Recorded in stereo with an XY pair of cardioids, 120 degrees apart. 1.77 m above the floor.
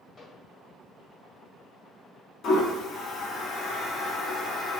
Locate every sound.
0.2 s a microwave: 35° left, 1.9 m
2.4 s a toilet flushing: 60° left, 0.8 m